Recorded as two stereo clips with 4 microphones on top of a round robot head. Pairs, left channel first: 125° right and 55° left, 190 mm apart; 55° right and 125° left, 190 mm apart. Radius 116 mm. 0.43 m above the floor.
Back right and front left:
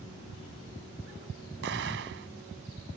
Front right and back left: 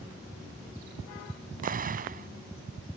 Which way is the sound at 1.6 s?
80° left.